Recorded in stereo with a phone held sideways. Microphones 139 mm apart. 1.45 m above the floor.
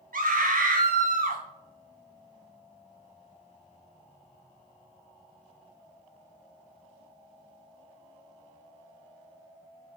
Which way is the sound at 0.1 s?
80° right.